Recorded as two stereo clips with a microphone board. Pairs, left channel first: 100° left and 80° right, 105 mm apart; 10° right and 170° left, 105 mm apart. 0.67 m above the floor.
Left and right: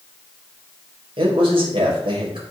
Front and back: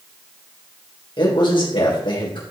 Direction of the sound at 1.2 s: 50° right.